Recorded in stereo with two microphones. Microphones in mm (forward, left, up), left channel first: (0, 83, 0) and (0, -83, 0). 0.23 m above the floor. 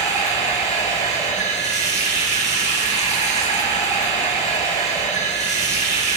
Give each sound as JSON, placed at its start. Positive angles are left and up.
{"t": 0.0, "sound": "running water", "side_deg": 45, "distance_m": 3.0}